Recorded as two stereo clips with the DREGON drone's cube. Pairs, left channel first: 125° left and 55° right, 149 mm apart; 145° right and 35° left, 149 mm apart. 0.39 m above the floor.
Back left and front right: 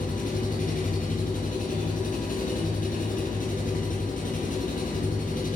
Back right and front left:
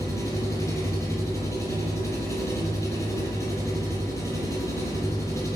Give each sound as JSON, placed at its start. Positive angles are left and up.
{"t": 0.0, "sound": "an engine running", "azimuth_deg": 145, "distance_m": 3.5}